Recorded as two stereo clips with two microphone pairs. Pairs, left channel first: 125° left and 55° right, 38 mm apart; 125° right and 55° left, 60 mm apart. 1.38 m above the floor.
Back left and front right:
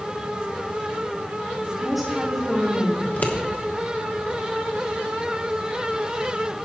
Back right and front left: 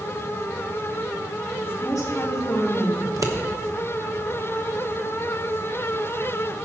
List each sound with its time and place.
1.6 s a woman speaking: 140° right, 3 m
3.0 s scissors: 80° left, 1.1 m